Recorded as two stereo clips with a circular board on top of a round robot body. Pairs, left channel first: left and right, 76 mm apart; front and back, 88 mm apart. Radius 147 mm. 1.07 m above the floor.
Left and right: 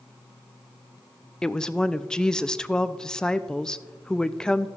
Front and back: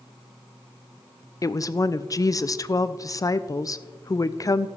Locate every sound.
1.4 s a woman speaking: 15° left, 0.6 m